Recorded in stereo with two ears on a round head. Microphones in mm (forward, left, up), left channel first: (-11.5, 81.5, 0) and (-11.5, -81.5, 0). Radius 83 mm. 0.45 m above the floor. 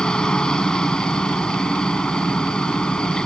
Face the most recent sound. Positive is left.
turn(degrees=5)  # may be behind; listen again after turning